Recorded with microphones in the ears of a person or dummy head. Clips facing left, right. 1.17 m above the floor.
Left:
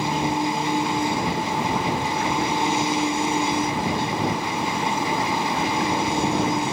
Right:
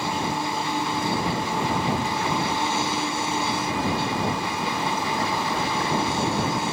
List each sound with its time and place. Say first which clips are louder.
0.0 s an engine running: left 4 dB; 15° left (ahead or behind)